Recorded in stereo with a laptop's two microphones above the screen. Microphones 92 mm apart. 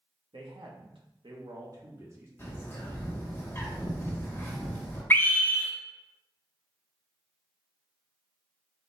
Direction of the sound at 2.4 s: 25° left (ahead or behind).